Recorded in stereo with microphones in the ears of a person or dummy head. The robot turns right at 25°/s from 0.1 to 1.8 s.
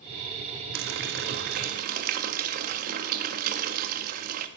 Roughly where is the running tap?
Right.